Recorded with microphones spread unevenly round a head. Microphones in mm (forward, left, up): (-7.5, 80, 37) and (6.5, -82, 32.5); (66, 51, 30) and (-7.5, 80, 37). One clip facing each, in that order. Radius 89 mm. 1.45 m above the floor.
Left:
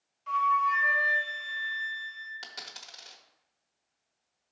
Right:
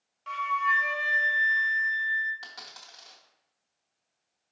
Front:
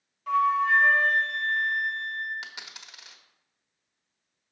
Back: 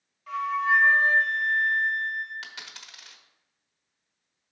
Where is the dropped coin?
45° left, 1.1 m.